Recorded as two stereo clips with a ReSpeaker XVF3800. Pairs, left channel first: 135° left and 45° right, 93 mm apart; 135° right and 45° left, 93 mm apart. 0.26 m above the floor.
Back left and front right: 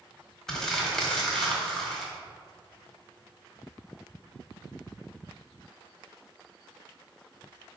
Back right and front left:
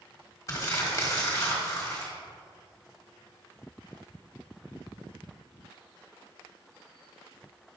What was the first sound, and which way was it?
Crumpling, 145° right.